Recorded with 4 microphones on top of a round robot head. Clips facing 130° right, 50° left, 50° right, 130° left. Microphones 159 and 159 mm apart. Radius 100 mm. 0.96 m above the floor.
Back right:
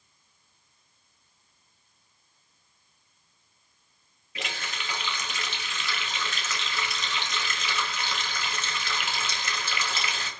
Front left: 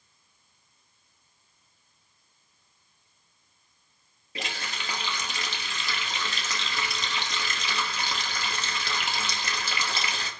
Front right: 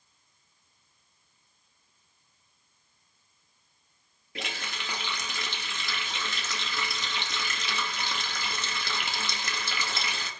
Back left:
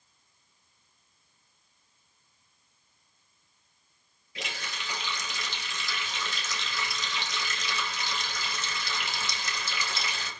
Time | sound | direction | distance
4.3 | a running tap | 10° right | 1.6 m